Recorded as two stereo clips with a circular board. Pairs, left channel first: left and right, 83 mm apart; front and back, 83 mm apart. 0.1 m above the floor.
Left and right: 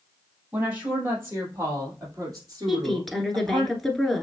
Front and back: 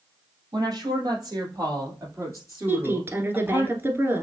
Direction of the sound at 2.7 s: 175° left.